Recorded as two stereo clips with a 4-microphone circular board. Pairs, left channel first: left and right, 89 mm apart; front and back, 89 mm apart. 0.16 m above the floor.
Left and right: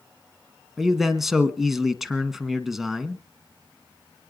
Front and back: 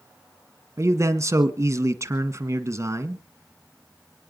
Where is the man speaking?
175° right, 1.5 m.